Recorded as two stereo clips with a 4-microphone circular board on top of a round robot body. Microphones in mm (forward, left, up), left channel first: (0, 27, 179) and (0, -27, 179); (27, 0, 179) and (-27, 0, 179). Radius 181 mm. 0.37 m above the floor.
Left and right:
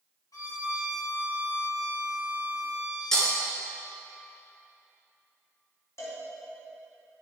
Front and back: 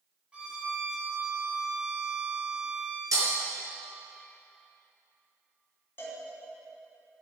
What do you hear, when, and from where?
0.3 s a violin: 110° left, 4 m
3.1 s breaking glass: 170° left, 3 m
6.0 s a cowbell: 55° left, 2.5 m